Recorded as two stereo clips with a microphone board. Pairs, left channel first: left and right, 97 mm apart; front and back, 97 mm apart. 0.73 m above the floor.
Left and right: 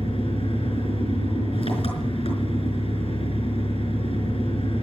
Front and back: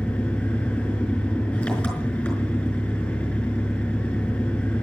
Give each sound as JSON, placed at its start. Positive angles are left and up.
{"t": 0.0, "sound": "an engine running", "azimuth_deg": 80, "distance_m": 5.0}